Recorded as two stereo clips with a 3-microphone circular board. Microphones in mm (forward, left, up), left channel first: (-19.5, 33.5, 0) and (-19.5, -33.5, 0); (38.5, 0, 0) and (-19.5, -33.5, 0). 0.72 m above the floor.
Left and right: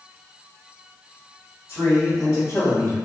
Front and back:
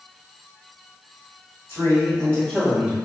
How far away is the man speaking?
About 1.6 m.